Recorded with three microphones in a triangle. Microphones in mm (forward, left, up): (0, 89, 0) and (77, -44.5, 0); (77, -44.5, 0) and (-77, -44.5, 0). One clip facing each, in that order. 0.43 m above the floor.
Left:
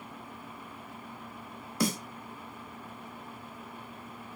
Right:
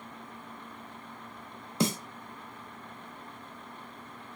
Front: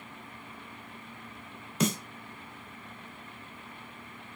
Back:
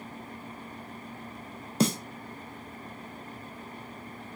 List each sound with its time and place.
1.8 s a snare drum: 125° right, 0.5 m